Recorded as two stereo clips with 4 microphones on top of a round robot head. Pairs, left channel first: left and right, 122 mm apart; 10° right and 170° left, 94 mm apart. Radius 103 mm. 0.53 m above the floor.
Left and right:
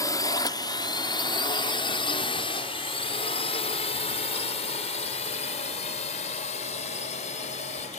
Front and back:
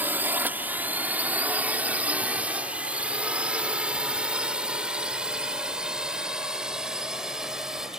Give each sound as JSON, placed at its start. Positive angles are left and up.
{"t": 0.0, "sound": "a drone", "azimuth_deg": 120}